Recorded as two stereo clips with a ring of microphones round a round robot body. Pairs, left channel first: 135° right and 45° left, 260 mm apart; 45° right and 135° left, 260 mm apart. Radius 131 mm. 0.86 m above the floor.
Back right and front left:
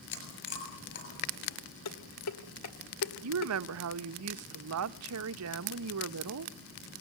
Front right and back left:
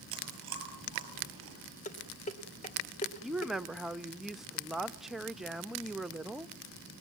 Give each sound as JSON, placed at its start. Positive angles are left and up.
{"t": 0.1, "sound": "chewing", "azimuth_deg": 175, "distance_m": 7.0}
{"t": 1.9, "sound": "dishes clattering", "azimuth_deg": -110, "distance_m": 2.5}
{"t": 3.2, "sound": "a woman speaking", "azimuth_deg": 45, "distance_m": 0.7}